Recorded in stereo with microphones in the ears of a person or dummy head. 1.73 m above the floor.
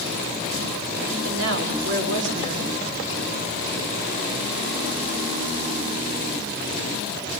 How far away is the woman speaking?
About 6.5 m.